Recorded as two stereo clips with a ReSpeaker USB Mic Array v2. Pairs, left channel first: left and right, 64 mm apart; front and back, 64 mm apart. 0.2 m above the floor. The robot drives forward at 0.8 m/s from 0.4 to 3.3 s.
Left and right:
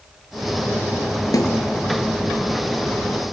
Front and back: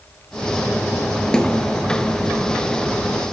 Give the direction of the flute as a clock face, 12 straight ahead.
No flute in this recording.